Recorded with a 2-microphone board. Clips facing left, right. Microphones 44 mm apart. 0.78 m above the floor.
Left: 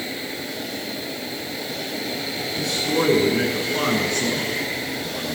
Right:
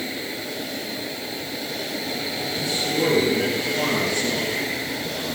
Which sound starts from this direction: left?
A man speaking, at 2.6 s.